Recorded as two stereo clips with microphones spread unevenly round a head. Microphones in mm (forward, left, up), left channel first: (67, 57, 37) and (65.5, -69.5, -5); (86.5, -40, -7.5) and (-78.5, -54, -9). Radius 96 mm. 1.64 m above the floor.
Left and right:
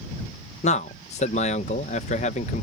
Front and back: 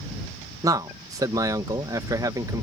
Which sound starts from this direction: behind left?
A man speaking, at 0.6 s.